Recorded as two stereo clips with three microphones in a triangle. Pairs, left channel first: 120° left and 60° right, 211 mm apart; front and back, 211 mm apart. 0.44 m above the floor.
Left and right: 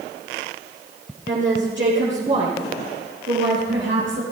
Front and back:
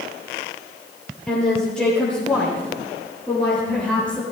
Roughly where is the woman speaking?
Right.